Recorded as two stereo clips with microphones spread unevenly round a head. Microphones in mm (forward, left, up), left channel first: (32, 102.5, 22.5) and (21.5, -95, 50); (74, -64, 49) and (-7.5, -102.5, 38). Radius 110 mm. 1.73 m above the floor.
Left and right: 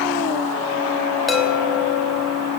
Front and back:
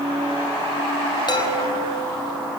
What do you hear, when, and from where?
1.3 s a chime: 5° right, 4.5 m